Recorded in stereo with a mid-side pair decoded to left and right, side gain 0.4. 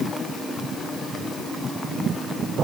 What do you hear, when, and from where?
Only background noise.